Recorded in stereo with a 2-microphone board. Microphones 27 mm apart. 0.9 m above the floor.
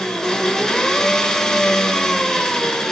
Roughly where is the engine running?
Left.